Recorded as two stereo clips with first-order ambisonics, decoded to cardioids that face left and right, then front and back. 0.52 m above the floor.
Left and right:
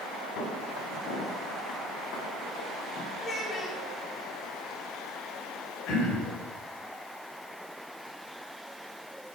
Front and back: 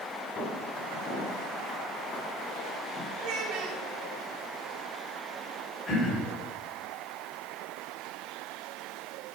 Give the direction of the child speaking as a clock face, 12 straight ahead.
7 o'clock.